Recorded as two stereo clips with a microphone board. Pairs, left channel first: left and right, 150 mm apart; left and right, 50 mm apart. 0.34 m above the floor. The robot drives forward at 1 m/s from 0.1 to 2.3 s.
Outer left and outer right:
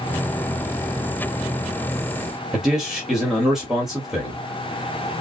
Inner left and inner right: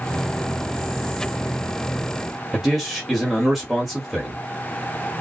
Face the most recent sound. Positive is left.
turn(degrees=0)  # may be behind; listen again after turning